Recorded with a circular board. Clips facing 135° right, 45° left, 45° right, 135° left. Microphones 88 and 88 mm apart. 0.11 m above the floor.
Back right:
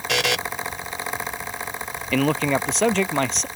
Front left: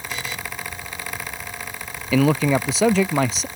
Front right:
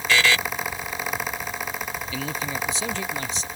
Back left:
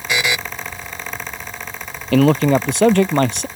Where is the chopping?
I don't hear chopping.